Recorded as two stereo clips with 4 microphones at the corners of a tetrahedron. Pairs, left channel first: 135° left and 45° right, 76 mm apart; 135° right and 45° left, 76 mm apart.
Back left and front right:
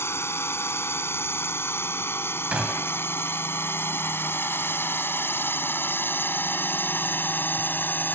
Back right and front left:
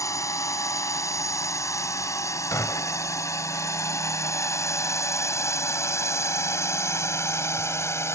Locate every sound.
0.0 s a drone: 175° right; by 8.2 s 170° right
2.5 s a gunshot: 115° right